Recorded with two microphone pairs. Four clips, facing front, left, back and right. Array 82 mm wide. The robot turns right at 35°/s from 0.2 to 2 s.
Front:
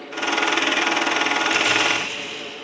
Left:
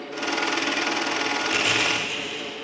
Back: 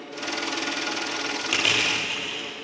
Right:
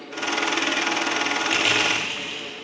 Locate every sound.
1.5 s crushing: 135° right, 9 m; by 2.5 s 120° right, 9 m